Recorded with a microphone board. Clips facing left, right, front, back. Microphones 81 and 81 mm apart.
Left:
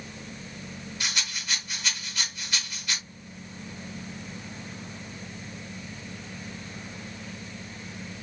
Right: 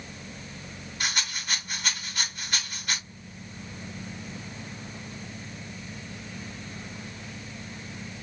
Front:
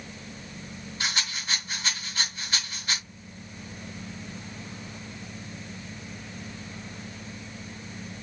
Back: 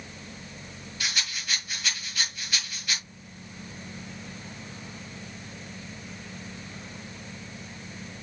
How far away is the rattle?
About 1.8 m.